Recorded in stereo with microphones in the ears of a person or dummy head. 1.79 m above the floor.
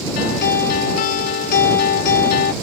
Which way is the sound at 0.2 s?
55° left (ahead or behind).